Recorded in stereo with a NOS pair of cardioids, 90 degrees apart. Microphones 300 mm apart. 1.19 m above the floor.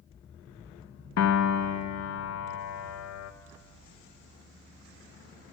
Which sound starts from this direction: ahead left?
A piano, at 1.2 s.